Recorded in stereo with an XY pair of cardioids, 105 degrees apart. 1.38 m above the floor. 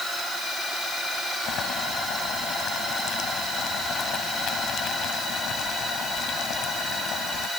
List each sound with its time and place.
1.4 s boiling: 70° left